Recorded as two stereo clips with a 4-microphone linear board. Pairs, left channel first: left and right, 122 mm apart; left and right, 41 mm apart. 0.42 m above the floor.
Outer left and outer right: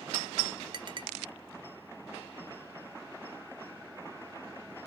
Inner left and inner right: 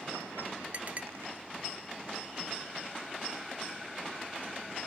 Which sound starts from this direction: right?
A clink, at 0.7 s.